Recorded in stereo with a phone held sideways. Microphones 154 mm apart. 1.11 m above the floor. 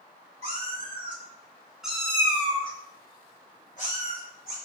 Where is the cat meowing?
45° right (ahead or behind), 1.2 m; by 4.6 s 65° left (ahead or behind), 1.6 m.